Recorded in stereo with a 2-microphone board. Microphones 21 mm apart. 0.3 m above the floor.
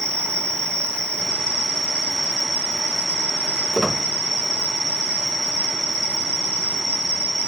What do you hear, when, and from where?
0.0 s an insect: 50° left (ahead or behind), 2.0 m
3.7 s a squeak: 5° left (ahead or behind), 0.9 m